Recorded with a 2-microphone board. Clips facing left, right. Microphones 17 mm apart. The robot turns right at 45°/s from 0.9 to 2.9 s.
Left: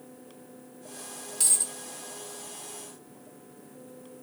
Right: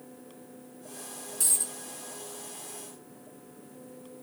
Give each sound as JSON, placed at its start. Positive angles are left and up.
{"t": 1.4, "sound": "a dropped coin", "side_deg": 35, "distance_m": 0.7}